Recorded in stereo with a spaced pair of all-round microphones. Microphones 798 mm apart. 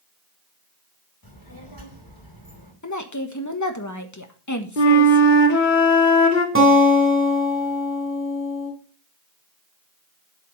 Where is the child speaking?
25° left (ahead or behind), 5 m.